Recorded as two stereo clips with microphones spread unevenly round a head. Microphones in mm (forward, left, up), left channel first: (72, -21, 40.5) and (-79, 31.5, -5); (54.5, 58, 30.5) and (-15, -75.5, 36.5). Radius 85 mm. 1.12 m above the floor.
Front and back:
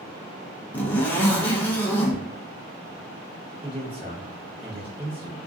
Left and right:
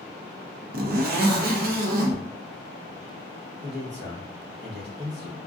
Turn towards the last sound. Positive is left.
turn(degrees=-135)